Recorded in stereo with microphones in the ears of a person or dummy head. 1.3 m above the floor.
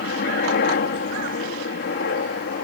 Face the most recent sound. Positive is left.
turn(degrees=45)  # may be behind; listen again after turning